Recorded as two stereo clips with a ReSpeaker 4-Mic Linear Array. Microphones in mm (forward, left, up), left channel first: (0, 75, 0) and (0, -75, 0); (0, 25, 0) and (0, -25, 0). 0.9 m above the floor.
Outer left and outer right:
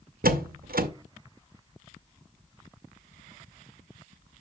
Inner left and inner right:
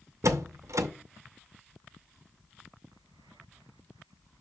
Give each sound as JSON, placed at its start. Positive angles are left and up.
{"t": 0.2, "sound": "a door slam", "side_deg": -80, "distance_m": 0.7}